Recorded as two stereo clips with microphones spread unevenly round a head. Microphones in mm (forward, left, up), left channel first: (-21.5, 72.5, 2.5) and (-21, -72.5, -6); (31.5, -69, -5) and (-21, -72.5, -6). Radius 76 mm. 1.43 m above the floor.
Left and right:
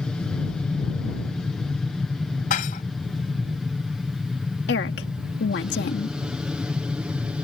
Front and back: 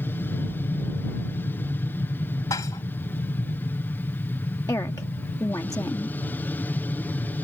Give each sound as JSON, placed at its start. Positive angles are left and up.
{"t": 0.0, "sound": "an aircraft", "azimuth_deg": 5}
{"t": 2.5, "sound": "dishes clattering", "azimuth_deg": 50}
{"t": 4.7, "sound": "a woman speaking", "azimuth_deg": 65}